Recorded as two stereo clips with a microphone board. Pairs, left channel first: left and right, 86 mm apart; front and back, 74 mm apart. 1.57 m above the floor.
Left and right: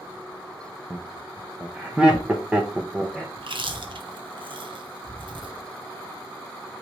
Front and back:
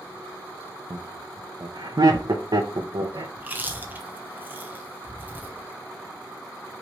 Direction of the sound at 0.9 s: 170° right.